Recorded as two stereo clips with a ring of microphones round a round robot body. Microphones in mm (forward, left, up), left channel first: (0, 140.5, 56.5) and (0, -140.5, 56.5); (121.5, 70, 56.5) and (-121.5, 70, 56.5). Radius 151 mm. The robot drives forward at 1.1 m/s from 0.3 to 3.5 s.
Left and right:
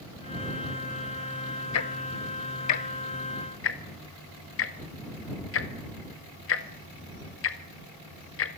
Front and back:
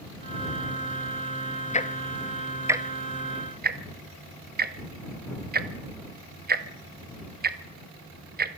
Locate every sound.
1.7 s ticking: 60° left, 1.7 m; by 8.6 s 130° left, 1.9 m